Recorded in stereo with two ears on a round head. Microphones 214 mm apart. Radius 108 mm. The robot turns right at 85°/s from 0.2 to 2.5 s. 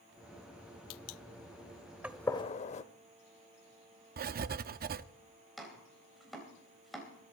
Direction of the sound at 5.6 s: Centre (ahead or behind).